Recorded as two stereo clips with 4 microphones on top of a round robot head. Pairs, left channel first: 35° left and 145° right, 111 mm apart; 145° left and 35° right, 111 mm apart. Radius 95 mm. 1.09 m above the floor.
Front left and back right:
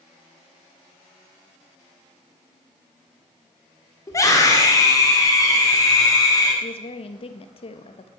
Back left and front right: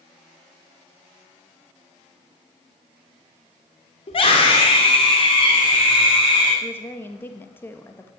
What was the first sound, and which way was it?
A scream, 100° left.